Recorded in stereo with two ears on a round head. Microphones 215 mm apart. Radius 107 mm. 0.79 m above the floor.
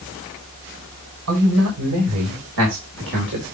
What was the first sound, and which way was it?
A man speaking, 70° right (ahead or behind).